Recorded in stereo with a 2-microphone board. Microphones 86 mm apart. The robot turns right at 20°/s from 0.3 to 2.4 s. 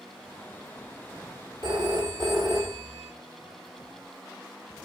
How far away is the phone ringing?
About 1.9 m.